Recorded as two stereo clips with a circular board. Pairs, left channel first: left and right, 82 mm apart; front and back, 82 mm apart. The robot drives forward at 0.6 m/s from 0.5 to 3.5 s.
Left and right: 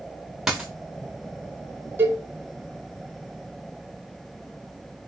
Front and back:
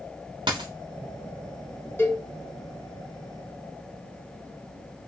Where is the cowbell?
40° right, 1.0 m; by 2.2 s 50° right, 0.9 m.